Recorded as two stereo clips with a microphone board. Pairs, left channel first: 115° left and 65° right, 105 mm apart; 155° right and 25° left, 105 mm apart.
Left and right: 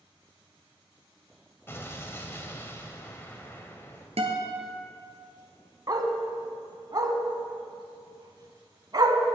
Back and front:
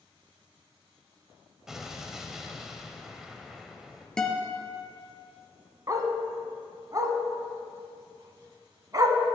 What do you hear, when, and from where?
1.7 s an explosion: 105° left, 0.9 m
4.2 s a guitar: 75° right, 1.5 m
5.9 s a dog barking: 25° right, 0.9 m